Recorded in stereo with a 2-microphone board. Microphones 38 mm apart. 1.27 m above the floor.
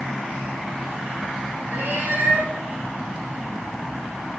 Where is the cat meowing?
65° right (ahead or behind), 4 m.